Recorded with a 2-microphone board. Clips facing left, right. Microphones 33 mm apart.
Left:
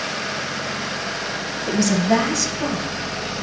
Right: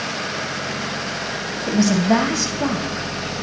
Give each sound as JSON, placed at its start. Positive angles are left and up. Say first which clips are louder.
{"t": 1.7, "sound": "a woman speaking", "louder": "right 1 dB", "side_deg": -15, "distance_m": 1.0}